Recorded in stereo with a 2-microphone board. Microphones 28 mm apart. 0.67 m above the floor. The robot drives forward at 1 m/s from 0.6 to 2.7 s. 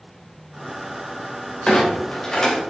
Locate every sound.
1.7 s a clunk: 30° left (ahead or behind), 3 m; by 2.6 s 20° left (ahead or behind), 3.5 m